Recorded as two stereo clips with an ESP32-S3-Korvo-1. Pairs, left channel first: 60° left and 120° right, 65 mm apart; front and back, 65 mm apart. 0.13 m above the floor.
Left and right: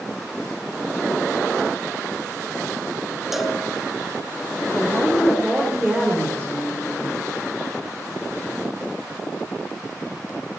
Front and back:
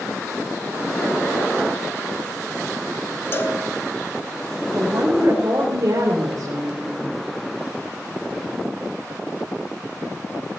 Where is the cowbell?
35° right, 1.1 m.